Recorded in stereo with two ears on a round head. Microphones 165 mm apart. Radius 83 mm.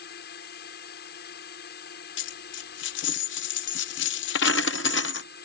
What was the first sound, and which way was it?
A drone, 55° left (ahead or behind).